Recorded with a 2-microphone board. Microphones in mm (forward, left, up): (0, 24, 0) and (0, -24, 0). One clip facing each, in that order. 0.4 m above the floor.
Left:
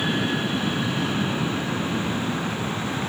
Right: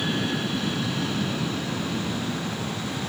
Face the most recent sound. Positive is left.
turn(degrees=35)  # may be behind; listen again after turning